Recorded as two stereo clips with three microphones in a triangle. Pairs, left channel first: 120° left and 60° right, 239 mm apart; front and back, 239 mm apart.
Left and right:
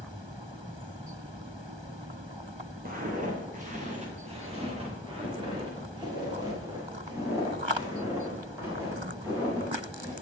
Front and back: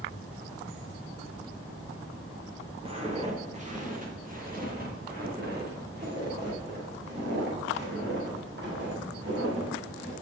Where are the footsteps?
115° right, 3 m; by 10.1 s 140° right, 7 m.